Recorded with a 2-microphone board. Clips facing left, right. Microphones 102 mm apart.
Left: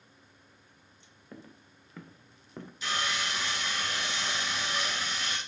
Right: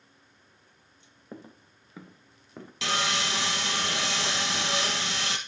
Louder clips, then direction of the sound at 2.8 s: Right 4 dB; 80° right.